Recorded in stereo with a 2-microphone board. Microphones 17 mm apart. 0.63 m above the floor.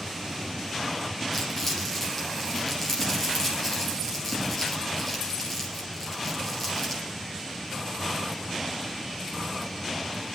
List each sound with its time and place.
1.3 s crumpling: 15° left (ahead or behind), 3.5 m